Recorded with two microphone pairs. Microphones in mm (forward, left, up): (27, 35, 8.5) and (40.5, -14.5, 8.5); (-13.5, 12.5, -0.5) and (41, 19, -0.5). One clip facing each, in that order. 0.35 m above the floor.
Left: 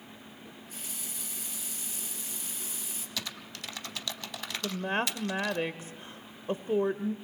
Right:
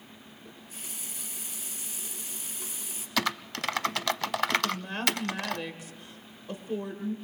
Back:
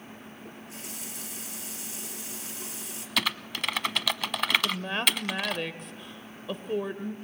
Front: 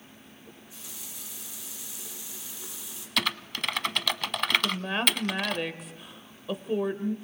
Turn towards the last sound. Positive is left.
turn(degrees=90)